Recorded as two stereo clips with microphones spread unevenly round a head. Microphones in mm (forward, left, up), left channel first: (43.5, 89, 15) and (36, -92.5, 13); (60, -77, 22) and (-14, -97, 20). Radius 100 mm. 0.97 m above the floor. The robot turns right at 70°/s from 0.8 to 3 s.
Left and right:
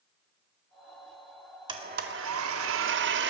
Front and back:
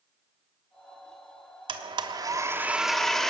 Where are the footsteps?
No footsteps in this recording.